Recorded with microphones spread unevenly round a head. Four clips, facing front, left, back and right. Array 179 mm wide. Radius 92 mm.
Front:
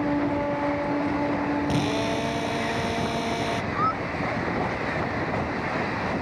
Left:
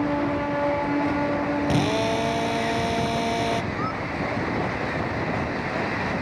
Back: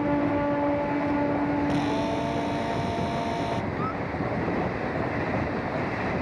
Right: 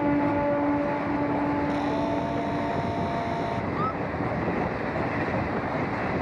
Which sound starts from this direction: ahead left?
A drill, at 1.7 s.